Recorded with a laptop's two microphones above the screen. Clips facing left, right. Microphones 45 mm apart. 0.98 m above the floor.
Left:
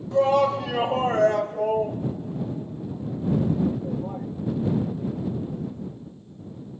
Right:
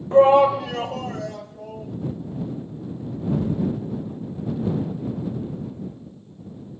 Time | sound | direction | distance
0.1 | a shout | 35° right (ahead or behind) | ?